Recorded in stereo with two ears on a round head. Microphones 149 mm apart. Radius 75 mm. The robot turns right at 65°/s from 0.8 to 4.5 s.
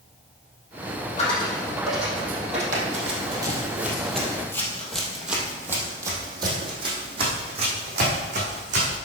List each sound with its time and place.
1.2 s a dropped coin: 40° left (ahead or behind), 3.5 m; by 2.6 s 45° right (ahead or behind), 3.5 m
2.7 s running footsteps: 50° right (ahead or behind), 3 m; by 9.0 s 45° right (ahead or behind), 5.5 m